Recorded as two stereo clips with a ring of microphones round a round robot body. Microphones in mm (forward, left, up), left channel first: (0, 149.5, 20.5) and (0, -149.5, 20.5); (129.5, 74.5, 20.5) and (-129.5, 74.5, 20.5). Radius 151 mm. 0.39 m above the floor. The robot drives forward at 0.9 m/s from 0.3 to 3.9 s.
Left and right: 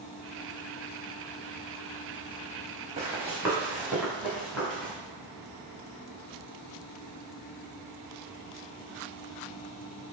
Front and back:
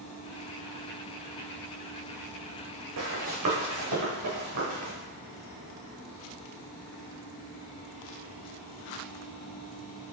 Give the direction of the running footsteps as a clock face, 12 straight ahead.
5 o'clock.